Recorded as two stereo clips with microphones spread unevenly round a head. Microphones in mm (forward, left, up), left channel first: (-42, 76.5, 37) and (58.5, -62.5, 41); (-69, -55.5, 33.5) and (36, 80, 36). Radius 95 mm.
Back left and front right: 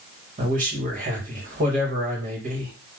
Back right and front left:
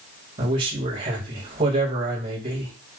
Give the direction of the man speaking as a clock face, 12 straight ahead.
12 o'clock.